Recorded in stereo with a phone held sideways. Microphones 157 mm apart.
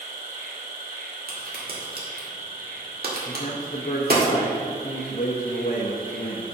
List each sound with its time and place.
0.0 s an insect: 60° right (ahead or behind), 1.8 m
1.3 s a crack: 75° right (ahead or behind), 1.8 m
3.2 s a man speaking: 50° left (ahead or behind), 0.8 m